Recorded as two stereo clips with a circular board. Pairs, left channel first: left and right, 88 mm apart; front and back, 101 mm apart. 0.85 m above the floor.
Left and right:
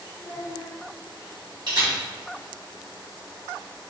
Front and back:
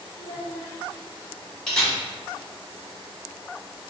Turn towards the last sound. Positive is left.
turn(degrees=-85)